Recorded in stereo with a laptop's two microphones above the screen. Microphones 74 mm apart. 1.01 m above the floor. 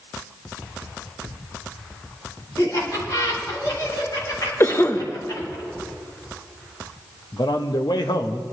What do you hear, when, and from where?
2.6 s laughter: 45° left (ahead or behind), 4.5 m
4.6 s a cough: 35° left (ahead or behind), 1.0 m
7.3 s a man speaking: 75° left (ahead or behind), 1.0 m